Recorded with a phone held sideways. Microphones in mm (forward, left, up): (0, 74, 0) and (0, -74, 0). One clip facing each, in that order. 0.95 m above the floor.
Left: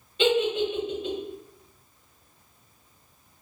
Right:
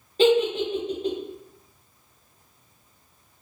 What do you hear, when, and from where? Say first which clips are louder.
0.2 s a giggle: right 4 dB; 40° right (ahead or behind), 0.7 m